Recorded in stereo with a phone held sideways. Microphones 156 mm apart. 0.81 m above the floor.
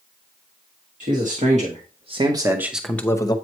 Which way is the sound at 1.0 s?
60° right (ahead or behind).